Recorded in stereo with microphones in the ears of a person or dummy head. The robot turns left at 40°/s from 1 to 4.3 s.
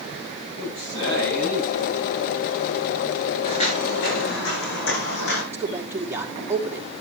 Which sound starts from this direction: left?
Footsteps, at 3.4 s.